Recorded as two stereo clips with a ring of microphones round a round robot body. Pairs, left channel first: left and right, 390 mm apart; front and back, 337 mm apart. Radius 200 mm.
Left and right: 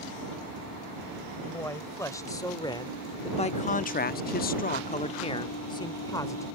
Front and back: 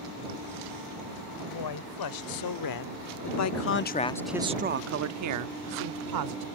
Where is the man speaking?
5° left; by 6.5 s 170° left.